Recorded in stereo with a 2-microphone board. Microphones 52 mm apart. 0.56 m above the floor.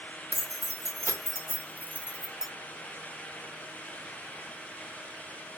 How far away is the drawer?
I don't hear a drawer.